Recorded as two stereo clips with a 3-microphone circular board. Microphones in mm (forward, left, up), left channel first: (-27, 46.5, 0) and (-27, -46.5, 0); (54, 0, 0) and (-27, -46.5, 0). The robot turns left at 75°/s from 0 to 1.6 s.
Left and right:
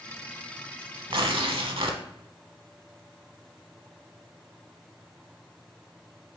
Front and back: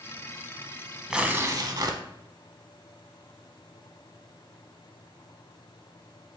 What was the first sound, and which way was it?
Tearing paper, 65° right.